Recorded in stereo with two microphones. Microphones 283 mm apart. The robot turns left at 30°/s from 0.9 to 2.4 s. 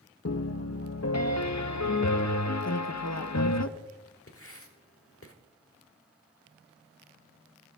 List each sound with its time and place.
0.2 s a piano: 120° left, 0.6 m; by 3.6 s 75° left, 0.6 m
2.6 s a woman speaking: 65° left (ahead or behind), 0.9 m
4.3 s writing: 50° left (ahead or behind), 1.3 m